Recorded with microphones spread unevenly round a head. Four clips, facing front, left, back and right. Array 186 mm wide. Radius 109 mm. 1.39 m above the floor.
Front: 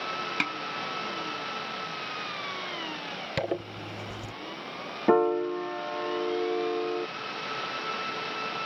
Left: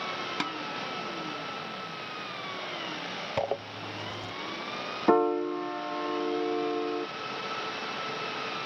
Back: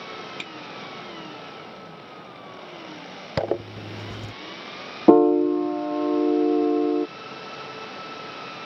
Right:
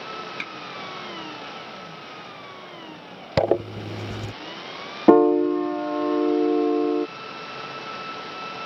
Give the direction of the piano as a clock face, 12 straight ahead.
5 o'clock.